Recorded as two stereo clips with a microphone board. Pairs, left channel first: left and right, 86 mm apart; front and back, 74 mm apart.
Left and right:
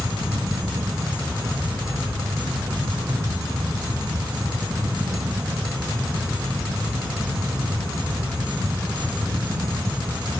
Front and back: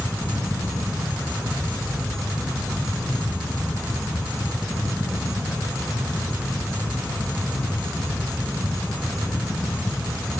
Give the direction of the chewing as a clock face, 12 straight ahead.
No chewing in this recording.